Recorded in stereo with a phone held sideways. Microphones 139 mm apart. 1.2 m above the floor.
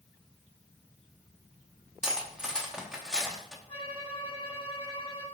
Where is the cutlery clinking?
5° right (ahead or behind), 1.0 m.